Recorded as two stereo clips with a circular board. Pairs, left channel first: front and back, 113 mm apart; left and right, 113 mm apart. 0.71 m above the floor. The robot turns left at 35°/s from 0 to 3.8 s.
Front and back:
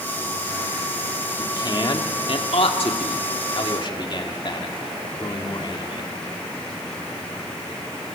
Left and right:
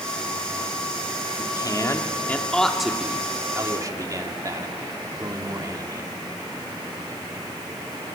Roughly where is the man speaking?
Ahead left.